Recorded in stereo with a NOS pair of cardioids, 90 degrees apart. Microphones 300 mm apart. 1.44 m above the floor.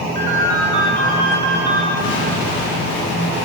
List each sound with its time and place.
0.1 s a ringtone: 40° right, 2.5 m
2.0 s an explosion: 50° left, 4 m